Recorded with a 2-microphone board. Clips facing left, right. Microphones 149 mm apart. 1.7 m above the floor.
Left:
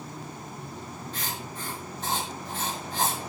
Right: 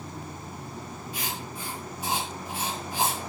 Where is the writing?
10° right (ahead or behind), 5.5 m.